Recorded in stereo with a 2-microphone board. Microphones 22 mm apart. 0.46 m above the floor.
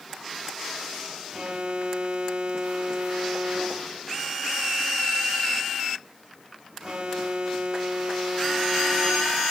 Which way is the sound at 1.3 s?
50° right (ahead or behind).